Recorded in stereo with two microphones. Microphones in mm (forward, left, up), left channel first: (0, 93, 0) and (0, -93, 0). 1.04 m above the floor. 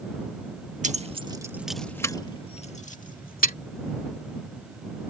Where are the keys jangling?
40° right (ahead or behind); by 3.5 s 55° left (ahead or behind).